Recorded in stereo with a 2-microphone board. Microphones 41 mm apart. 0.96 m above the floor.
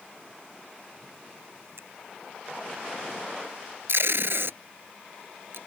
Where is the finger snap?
80° right.